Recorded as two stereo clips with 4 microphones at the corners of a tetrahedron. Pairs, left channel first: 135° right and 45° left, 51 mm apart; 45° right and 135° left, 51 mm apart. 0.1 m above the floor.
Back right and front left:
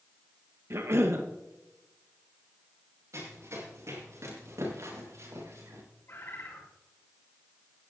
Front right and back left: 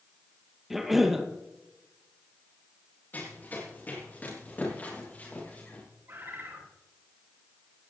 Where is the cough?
50° left, 2.5 m.